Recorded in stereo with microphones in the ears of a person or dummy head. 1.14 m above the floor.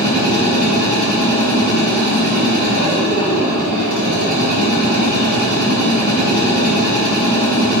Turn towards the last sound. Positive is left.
turn(degrees=-50)  # may be behind; listen again after turning